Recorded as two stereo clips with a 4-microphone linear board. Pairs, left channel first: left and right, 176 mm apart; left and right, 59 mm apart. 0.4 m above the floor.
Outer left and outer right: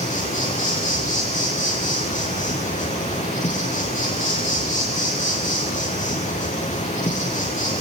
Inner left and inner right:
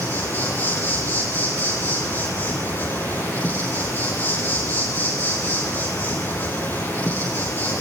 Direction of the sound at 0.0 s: 40° left (ahead or behind).